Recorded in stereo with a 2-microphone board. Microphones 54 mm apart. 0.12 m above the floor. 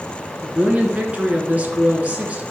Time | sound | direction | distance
0.4 | a woman speaking | 25° right (ahead or behind) | 1.8 m